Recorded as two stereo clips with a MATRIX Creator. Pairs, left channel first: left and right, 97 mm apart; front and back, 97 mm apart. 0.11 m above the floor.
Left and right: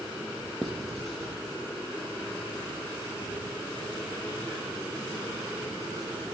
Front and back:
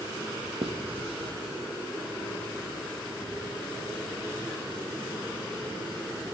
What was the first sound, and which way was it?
Writing, 175° left.